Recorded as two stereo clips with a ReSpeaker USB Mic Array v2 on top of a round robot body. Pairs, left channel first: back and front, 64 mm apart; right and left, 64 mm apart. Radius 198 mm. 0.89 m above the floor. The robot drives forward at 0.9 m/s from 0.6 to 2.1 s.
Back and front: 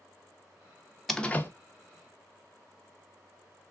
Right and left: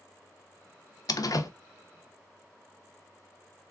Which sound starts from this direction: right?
A door slam, at 1.1 s.